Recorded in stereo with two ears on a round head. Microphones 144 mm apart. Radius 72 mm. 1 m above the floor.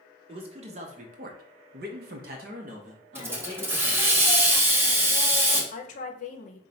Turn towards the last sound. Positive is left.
turn(degrees=50)  # may be behind; listen again after turning